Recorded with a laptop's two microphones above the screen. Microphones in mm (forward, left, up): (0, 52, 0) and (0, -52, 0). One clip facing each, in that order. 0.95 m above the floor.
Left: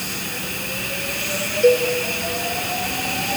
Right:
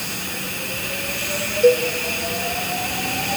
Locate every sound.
1.6 s a cowbell: 5° right (ahead or behind), 1.1 m